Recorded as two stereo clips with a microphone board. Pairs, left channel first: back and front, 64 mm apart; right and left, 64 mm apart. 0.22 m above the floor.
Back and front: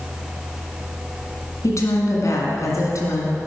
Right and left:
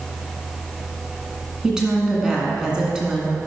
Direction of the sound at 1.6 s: 165° left.